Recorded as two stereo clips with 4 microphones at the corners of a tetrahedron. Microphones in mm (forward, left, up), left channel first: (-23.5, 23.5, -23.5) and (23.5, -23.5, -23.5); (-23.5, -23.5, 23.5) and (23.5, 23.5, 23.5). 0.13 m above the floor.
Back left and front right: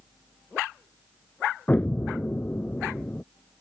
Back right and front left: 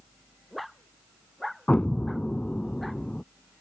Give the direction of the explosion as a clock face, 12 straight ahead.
6 o'clock.